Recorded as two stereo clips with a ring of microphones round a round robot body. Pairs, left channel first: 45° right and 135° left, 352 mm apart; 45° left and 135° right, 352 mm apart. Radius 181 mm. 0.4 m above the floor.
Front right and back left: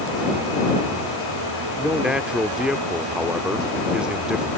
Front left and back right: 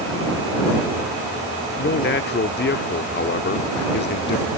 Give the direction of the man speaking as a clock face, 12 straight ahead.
10 o'clock.